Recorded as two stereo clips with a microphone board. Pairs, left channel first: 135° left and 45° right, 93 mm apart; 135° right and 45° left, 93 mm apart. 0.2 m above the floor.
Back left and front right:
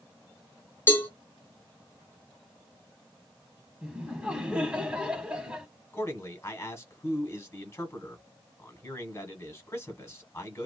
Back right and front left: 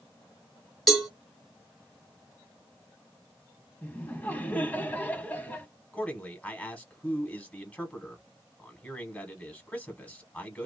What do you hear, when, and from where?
0.9 s a cowbell: 140° left, 1.2 m
3.8 s laughter: 105° right, 1.0 m
5.9 s a man speaking: 165° left, 1.2 m